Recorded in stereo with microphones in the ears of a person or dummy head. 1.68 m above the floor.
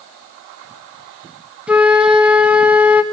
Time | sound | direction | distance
1.7 | a flute | 10° right (ahead or behind) | 1.1 m